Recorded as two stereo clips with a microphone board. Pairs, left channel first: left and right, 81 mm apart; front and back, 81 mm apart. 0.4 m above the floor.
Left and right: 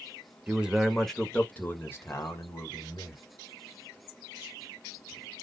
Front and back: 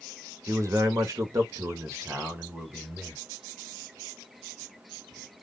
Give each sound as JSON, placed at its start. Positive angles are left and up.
{"t": 0.5, "sound": "a man speaking", "azimuth_deg": -160, "distance_m": 1.2}